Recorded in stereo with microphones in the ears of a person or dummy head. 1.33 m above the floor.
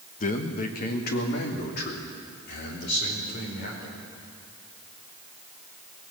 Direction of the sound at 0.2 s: 45° left (ahead or behind).